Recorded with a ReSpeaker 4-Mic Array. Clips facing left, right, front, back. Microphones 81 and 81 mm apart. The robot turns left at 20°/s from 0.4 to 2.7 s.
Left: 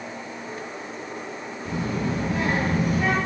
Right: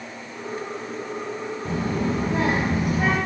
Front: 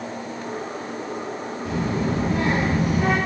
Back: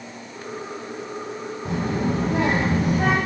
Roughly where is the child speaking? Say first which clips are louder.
Right 1 dB, even; behind right.